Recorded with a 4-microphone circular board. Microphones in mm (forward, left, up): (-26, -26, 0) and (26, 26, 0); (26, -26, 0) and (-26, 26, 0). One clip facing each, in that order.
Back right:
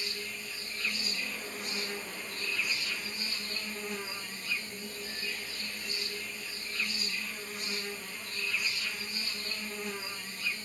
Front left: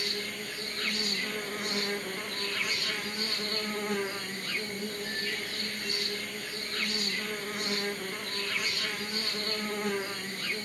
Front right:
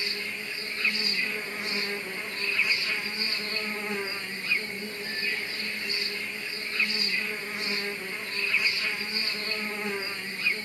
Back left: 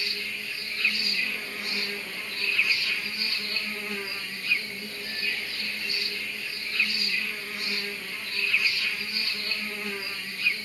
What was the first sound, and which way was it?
An insect, 20° left.